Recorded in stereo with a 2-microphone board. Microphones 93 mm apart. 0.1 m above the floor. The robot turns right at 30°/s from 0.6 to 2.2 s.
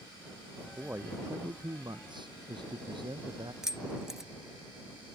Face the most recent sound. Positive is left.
turn(degrees=-5)  # may be behind; listen again after turning